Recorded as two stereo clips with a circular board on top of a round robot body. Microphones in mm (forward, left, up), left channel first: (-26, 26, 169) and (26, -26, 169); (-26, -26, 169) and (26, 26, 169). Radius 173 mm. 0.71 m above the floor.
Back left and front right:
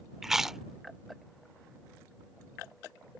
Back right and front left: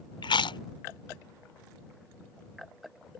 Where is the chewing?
130° right.